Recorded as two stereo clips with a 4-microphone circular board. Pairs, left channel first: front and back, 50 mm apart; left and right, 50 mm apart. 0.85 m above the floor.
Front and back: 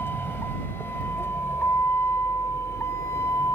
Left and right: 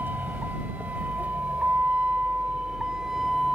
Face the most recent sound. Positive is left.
turn(degrees=0)